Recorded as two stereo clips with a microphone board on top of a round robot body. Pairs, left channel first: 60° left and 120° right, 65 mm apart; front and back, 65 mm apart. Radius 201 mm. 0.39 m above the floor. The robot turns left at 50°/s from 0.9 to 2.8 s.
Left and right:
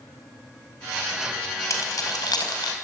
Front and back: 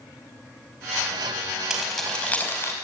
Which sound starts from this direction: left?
Keys jangling, at 1.7 s.